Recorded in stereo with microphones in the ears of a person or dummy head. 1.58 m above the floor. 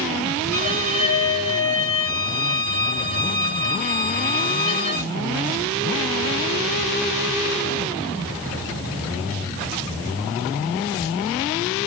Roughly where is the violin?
Centre.